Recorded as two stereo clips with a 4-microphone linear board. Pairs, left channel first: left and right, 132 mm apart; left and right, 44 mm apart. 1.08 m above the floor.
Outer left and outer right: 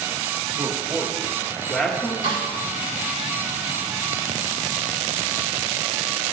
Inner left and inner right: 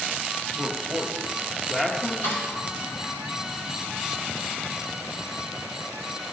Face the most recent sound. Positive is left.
turn(degrees=70)  # may be behind; listen again after turning